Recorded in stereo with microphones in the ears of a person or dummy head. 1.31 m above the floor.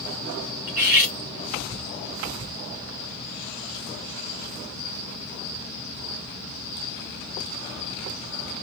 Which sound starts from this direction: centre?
Cutlery clinking, at 0.7 s.